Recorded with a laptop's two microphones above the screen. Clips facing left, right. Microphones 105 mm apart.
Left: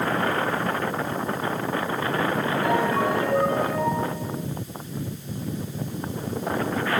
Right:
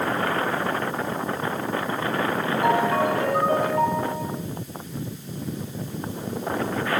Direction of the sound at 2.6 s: 70° right (ahead or behind).